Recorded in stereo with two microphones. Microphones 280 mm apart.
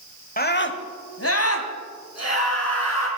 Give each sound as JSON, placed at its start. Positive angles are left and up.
{"t": 0.4, "sound": "a scream", "side_deg": 30, "distance_m": 1.1}